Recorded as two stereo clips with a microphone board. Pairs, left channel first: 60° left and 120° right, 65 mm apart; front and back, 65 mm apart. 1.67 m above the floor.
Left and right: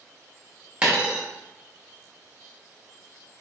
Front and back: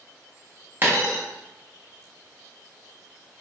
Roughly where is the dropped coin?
Behind.